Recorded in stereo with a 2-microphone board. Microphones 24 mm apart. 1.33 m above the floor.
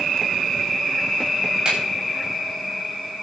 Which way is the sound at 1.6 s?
45° right (ahead or behind).